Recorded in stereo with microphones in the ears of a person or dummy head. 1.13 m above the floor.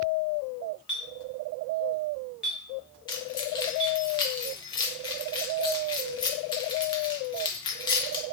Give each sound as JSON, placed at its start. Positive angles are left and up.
{"t": 0.9, "sound": "a clink", "side_deg": 0, "distance_m": 1.0}
{"t": 3.1, "sound": "keys jangling", "side_deg": 25, "distance_m": 0.6}